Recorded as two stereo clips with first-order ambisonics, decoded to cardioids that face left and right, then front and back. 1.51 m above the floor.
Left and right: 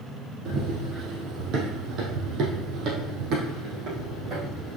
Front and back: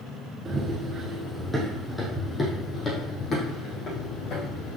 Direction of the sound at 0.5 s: 115° right.